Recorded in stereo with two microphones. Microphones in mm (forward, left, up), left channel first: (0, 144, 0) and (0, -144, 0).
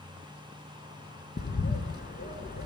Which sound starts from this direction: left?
A bird, at 1.4 s.